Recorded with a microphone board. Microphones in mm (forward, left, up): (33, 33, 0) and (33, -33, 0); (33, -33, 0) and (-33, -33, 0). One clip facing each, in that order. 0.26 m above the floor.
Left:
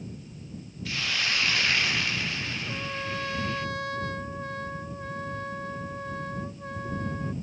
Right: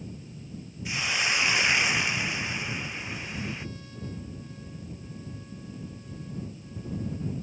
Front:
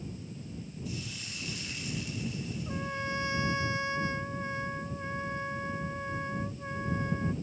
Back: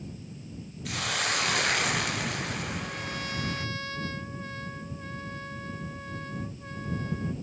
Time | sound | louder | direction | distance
0.8 | a hiss | right 2 dB, back 15 dB | 165° right | ?
2.7 | a trumpet | left 3 dB, even | 70° left | ?